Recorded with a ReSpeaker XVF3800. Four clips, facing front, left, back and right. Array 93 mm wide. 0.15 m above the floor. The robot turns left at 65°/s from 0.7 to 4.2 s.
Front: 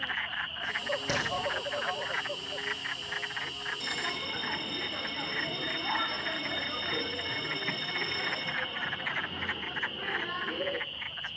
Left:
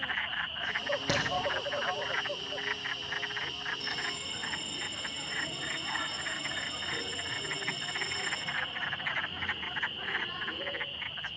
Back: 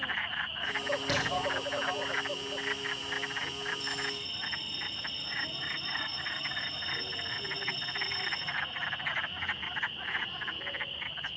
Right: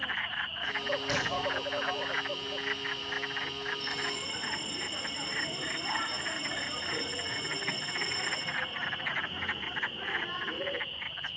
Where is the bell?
5° left, 0.6 m; by 10.8 s 20° right, 0.6 m.